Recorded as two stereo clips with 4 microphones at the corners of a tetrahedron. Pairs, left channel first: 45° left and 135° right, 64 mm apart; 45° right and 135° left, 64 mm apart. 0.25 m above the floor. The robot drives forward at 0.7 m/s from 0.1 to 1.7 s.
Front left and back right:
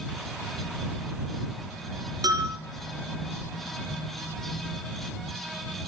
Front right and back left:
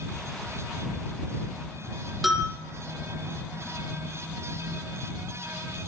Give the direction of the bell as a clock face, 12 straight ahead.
5 o'clock.